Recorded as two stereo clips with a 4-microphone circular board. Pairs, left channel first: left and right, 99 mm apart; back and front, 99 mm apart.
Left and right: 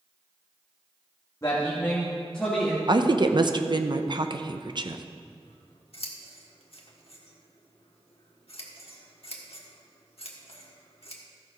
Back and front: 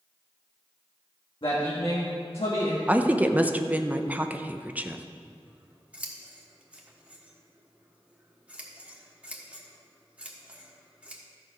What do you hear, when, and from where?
1.4 s a man speaking: 150° left, 1.5 m; by 2.8 s straight behind, 1.9 m
2.9 s a woman speaking: 70° right, 0.6 m
5.2 s scissors: 80° left, 1.4 m